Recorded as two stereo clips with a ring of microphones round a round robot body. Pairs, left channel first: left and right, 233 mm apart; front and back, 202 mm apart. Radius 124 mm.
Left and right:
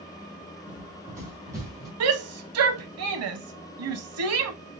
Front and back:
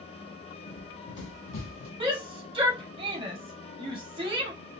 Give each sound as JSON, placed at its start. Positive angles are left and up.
{"t": 0.7, "sound": "running footsteps", "azimuth_deg": -10, "distance_m": 1.1}
{"t": 2.0, "sound": "a shout", "azimuth_deg": -110, "distance_m": 0.9}